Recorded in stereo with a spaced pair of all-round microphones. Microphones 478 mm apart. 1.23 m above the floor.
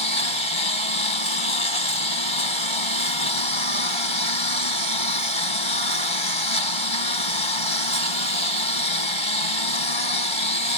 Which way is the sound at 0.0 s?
75° left (ahead or behind).